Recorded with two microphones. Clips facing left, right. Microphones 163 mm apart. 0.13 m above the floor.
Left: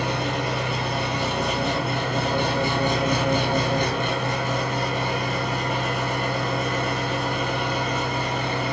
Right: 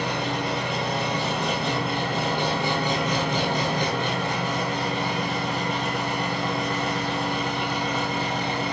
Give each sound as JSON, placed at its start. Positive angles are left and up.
{"t": 0.0, "sound": "an engine running", "side_deg": 50, "distance_m": 1.0}